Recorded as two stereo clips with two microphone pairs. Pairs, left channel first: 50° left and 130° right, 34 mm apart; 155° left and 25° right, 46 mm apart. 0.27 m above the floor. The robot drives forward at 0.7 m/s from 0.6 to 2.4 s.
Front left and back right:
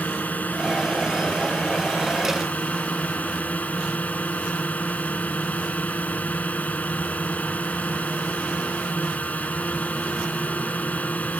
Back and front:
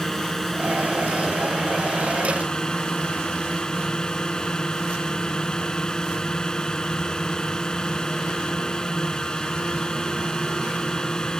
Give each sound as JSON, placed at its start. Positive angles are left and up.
{"t": 0.0, "sound": "a drone", "azimuth_deg": 70}